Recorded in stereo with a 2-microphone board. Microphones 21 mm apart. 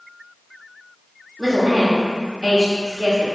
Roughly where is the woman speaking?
Right.